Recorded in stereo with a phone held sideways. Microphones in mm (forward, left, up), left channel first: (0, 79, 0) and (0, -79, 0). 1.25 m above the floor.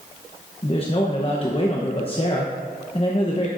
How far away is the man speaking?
About 1.0 m.